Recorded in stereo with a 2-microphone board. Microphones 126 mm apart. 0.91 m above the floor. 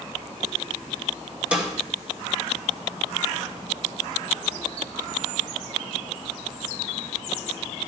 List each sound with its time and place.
1.5 s a snare drum: 10° right (ahead or behind), 2.5 m